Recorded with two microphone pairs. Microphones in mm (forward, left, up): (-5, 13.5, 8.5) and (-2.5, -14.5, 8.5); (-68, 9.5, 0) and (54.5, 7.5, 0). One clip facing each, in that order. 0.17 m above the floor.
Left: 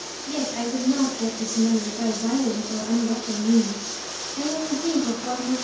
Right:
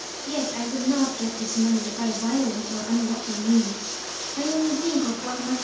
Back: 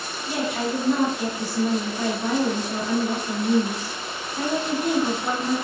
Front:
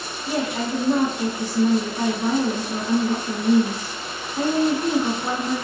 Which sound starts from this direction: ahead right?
A woman speaking, at 0.3 s.